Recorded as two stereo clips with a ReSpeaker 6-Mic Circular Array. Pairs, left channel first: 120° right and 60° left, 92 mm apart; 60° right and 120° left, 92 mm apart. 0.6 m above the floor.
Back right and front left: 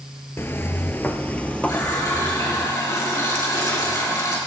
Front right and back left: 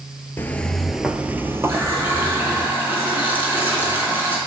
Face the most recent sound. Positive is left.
turn(degrees=-170)